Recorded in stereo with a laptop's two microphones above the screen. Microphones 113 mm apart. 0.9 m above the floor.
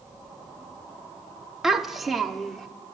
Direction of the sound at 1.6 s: 5° right (ahead or behind).